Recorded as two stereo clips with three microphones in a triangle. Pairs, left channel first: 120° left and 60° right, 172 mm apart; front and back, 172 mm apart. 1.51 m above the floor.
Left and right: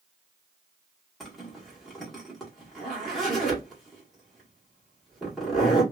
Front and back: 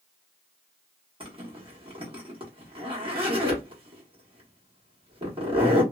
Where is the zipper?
150° right, 1.2 m.